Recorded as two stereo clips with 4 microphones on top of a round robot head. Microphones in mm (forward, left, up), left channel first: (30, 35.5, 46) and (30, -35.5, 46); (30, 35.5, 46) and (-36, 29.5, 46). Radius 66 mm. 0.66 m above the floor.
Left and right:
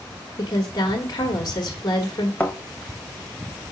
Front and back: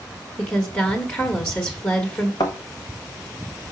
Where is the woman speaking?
60° left, 1.4 m.